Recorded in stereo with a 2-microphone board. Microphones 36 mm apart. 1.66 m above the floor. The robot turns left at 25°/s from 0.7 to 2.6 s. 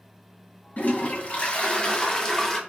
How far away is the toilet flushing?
About 0.5 m.